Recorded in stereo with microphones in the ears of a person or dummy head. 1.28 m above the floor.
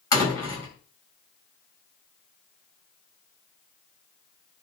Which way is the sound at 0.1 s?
20° left (ahead or behind).